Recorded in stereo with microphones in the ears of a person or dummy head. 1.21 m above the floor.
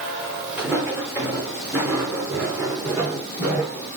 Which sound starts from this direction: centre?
Footsteps, at 0.6 s.